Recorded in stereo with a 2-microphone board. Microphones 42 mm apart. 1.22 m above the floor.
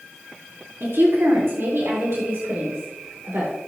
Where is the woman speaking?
75° right (ahead or behind), 3 m.